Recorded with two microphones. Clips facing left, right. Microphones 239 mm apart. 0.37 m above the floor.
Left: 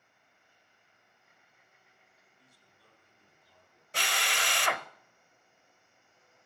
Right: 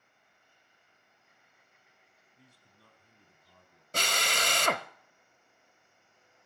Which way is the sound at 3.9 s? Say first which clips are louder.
Right 3 dB; 45° right (ahead or behind).